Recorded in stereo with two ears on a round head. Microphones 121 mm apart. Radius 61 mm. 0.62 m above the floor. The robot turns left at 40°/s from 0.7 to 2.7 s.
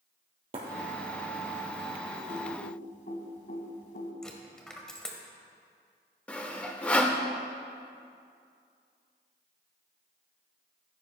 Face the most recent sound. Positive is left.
turn(degrees=10)  # may be behind; listen again after turning